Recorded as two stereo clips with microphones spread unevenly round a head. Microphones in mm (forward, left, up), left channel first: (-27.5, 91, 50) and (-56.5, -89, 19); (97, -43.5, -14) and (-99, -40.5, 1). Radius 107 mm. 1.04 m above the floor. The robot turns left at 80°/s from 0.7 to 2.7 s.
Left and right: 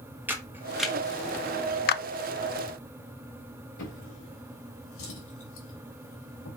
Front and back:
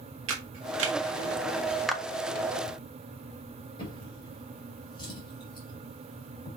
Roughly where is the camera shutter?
Behind.